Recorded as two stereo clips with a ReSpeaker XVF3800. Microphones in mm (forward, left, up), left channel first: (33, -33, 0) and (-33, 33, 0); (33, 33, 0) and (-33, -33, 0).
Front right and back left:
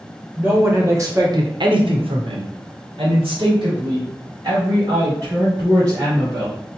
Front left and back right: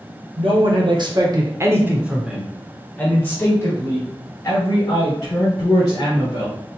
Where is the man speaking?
155° right, 1.5 m; by 6.6 s 90° left, 4 m.